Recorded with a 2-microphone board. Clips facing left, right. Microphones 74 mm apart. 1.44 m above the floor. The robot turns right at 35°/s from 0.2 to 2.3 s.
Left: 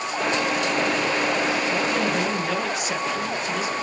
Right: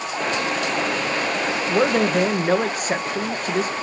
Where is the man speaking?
70° right (ahead or behind), 1.7 m; by 3.7 s 45° right (ahead or behind), 1.7 m.